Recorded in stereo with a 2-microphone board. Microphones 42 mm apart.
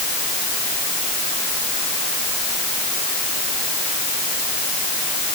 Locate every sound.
Only background noise.